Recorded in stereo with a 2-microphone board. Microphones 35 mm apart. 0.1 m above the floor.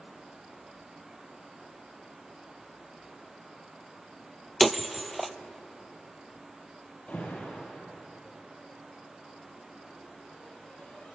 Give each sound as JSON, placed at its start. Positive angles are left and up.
{"t": 4.6, "sound": "breaking glass", "side_deg": 0, "distance_m": 0.6}
{"t": 7.1, "sound": "an alarm", "side_deg": 40, "distance_m": 4.5}